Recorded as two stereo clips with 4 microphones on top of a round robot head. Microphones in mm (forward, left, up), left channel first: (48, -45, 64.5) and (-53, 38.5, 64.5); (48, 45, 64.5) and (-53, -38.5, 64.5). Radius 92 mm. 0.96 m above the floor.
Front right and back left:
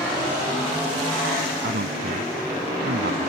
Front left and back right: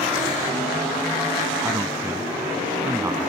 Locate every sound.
1.6 s a man speaking: 145° left